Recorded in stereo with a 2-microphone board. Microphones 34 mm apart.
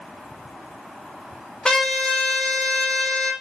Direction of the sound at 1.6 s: 25° left (ahead or behind).